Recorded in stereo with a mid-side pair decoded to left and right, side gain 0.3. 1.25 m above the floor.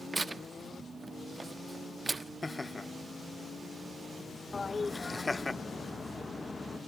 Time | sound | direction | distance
0.1 | tearing paper | 40° right | 1.3 m
2.4 | laughter | 25° left | 1.0 m
4.5 | a toilet flushing | 40° left | 1.5 m